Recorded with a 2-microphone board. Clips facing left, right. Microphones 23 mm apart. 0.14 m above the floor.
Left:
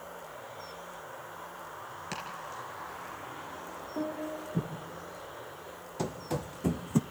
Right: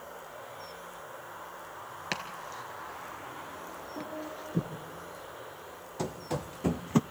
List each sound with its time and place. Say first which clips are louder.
2.1 s chopping: right 3 dB; 40° right (ahead or behind), 1.8 m
4.0 s a piano: left 5 dB; 35° left (ahead or behind), 4 m
6.0 s running footsteps: even; centre (ahead or behind), 1.3 m; by 7.0 s 35° right (ahead or behind), 0.5 m